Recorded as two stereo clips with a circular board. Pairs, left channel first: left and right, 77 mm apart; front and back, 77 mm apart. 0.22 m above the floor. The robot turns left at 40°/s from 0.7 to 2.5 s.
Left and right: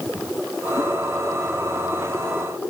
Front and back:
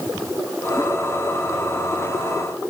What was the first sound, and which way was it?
Only background noise.